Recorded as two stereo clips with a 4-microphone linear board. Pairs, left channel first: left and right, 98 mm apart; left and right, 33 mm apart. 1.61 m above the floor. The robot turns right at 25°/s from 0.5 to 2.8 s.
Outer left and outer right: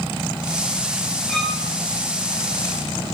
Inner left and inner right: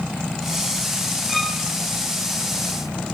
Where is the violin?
5° left (ahead or behind), 7 m; by 1.6 s centre (ahead or behind), 7 m.